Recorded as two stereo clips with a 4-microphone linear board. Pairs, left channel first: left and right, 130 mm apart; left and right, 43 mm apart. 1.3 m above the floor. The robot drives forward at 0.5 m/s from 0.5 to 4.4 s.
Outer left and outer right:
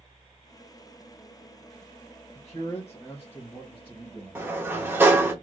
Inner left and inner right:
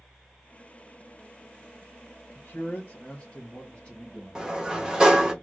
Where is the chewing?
No chewing in this recording.